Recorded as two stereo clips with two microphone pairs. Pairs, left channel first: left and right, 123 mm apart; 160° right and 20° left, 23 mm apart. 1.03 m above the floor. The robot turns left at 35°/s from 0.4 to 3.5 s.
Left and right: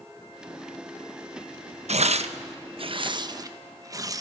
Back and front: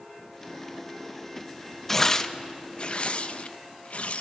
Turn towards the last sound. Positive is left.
turn(degrees=-145)